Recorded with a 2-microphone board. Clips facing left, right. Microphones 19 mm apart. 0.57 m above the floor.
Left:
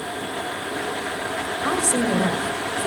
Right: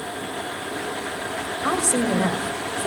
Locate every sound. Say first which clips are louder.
1.6 s a woman speaking: even; 15° right (ahead or behind), 2.5 m